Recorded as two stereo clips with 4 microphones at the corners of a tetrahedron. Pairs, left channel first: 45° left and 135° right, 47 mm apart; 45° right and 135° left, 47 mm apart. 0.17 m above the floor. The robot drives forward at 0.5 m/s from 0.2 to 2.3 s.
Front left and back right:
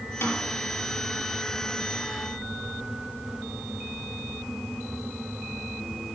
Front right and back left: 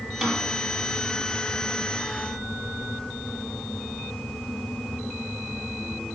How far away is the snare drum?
About 5 m.